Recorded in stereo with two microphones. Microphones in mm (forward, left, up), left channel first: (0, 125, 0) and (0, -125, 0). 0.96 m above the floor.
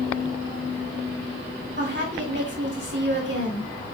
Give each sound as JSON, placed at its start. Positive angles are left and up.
{"t": 1.8, "sound": "a woman speaking", "side_deg": -45, "distance_m": 2.0}